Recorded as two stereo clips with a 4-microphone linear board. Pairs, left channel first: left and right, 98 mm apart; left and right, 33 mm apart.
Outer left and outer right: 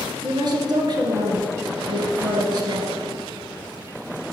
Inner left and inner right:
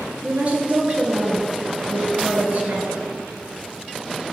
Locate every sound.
0.2 s a woman speaking: 50° right (ahead or behind), 2 m